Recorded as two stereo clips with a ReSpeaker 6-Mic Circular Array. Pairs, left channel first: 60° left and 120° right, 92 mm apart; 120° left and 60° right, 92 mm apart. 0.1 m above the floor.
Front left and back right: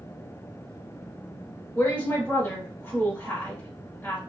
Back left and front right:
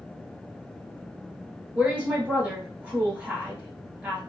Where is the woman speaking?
10° left, 1.9 m.